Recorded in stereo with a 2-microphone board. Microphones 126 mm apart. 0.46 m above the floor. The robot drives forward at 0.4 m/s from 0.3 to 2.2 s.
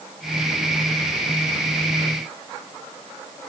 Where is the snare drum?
I don't hear a snare drum.